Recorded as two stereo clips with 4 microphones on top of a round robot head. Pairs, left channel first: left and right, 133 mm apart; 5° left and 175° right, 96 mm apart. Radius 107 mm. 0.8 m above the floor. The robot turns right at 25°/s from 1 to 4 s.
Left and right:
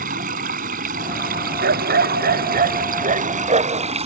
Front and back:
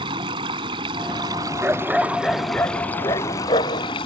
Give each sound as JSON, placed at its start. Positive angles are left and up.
{"t": 0.0, "sound": "running water", "azimuth_deg": -125}
{"t": 1.6, "sound": "a dog barking", "azimuth_deg": -100}